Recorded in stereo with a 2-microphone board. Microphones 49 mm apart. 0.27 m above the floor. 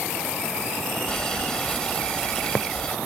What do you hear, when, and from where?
1.1 s boiling: 15° left (ahead or behind)